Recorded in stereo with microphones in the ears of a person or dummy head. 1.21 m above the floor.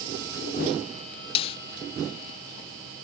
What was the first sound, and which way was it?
A snare drum, 30° left (ahead or behind).